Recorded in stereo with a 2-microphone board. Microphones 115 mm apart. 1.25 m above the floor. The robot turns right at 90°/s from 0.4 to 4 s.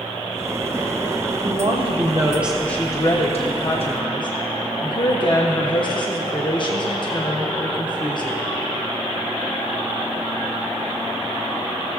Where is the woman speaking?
100° right, 1.0 m; by 8.4 s 130° left, 1.0 m.